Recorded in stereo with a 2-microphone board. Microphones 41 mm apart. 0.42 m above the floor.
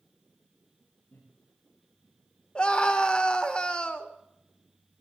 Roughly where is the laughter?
Left.